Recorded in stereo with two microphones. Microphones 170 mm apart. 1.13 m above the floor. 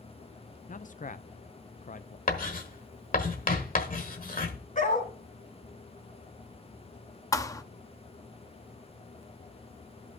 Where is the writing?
55° left (ahead or behind), 1.3 m.